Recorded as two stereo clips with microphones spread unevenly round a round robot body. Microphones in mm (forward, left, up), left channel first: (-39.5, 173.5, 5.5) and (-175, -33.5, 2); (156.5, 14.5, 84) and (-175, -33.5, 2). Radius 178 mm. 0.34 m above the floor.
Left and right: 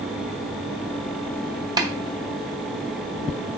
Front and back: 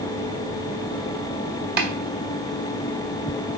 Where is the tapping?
170° left, 1.9 m.